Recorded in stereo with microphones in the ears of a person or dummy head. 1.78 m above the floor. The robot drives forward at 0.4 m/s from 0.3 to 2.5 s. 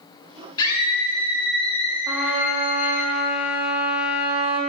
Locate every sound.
0.6 s a scream: 25° left (ahead or behind), 1.4 m; by 3.1 s 50° left (ahead or behind), 0.7 m
2.1 s a trumpet: 15° right (ahead or behind), 0.9 m; by 4.6 s 10° right (ahead or behind), 1.1 m